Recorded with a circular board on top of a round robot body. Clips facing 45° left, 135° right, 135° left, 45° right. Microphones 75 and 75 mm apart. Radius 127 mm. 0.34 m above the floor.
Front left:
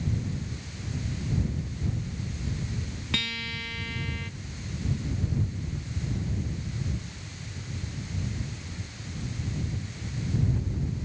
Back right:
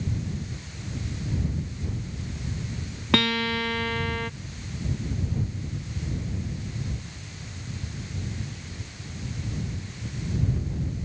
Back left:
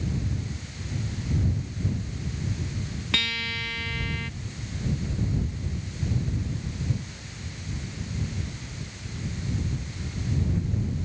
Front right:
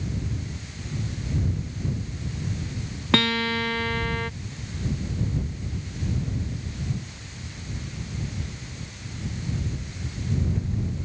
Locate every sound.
3.1 s a guitar: 95° right